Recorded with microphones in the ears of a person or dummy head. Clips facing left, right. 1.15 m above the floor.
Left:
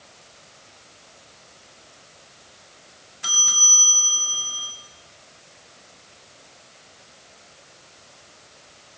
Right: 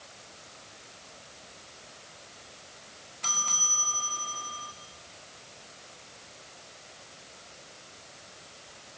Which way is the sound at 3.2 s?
10° left (ahead or behind).